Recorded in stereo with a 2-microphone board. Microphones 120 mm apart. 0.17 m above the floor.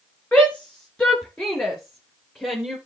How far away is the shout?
About 2.5 m.